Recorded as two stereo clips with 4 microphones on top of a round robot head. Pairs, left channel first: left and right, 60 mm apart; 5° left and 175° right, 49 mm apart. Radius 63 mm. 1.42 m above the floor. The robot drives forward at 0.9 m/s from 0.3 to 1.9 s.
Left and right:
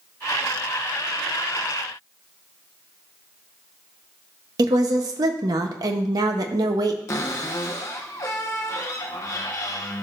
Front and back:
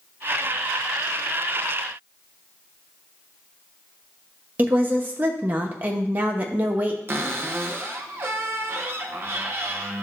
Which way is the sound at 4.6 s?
115° right.